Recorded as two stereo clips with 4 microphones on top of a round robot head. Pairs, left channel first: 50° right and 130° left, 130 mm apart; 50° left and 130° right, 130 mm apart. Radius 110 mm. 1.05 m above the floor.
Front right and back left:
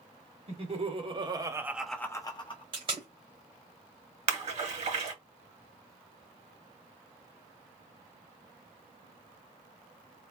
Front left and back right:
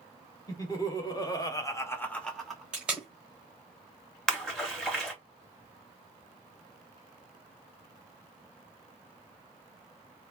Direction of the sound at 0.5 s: 105° left.